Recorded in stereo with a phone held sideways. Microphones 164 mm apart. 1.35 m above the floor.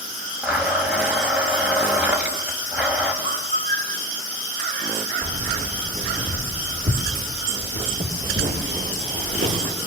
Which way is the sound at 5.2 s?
60° right (ahead or behind).